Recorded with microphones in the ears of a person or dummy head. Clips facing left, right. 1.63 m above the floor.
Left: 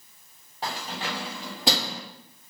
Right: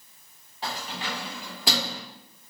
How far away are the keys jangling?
About 1.4 m.